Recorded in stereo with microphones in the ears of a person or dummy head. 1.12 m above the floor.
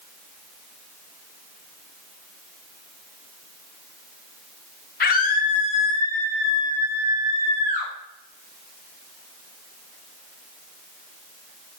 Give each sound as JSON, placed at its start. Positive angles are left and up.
{"t": 5.0, "sound": "a scream", "side_deg": 45, "distance_m": 1.2}